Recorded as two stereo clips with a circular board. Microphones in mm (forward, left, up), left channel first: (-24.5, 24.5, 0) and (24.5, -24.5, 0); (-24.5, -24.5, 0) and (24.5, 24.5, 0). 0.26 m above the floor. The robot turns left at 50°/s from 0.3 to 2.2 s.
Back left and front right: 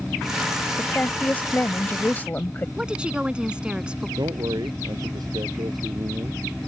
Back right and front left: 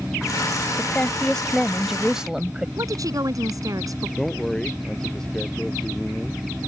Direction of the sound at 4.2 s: 55° right.